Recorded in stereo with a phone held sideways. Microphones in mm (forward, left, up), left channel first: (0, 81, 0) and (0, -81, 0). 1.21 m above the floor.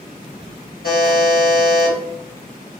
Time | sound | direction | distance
0.8 | a buzzer | 80° left | 1.6 m